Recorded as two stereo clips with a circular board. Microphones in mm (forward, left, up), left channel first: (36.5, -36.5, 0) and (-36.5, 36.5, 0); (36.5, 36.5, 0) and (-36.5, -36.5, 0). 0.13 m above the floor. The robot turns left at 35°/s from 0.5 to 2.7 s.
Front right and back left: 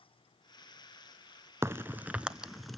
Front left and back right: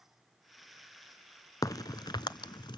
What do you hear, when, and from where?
1.6 s a crack: 80° left, 0.6 m; by 2.8 s 45° left, 0.6 m